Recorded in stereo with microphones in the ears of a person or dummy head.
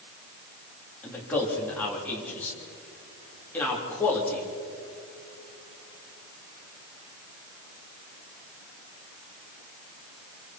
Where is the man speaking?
10° left (ahead or behind), 4 m.